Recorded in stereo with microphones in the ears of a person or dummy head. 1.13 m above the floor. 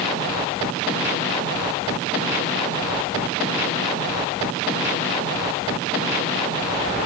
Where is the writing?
No writing in this recording.